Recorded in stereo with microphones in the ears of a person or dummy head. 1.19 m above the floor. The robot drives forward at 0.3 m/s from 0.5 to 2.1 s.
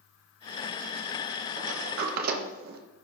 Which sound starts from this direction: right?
A sliding door, at 1.6 s.